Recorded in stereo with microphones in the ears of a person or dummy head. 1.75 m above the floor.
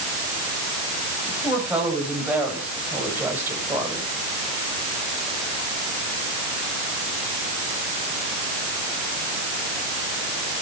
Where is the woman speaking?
5° right (ahead or behind), 9 m; by 4.1 s 10° right (ahead or behind), 6.5 m.